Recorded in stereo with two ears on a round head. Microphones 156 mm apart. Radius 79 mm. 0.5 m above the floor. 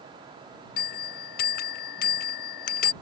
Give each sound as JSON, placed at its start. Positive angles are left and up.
{"t": 0.8, "sound": "a bell", "side_deg": 55}